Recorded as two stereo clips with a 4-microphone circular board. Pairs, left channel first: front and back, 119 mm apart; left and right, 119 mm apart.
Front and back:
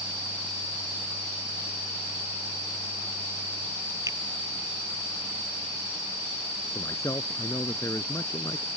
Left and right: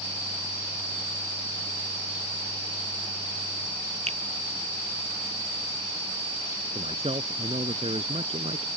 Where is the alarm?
I don't hear an alarm.